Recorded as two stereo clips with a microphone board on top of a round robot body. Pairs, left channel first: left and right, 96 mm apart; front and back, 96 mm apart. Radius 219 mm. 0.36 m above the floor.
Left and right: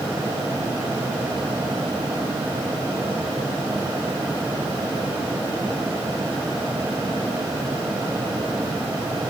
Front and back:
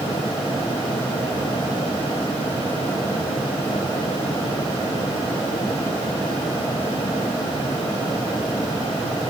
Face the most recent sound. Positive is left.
No sound to turn to.